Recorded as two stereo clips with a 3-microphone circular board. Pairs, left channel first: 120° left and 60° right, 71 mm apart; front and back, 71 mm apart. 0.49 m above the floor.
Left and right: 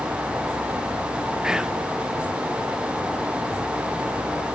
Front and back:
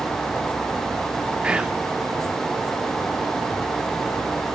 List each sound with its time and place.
1.4 s whispering: 125° right, 0.7 m